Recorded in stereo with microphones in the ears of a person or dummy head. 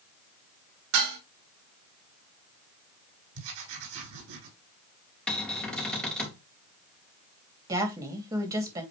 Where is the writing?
85° right, 6 m.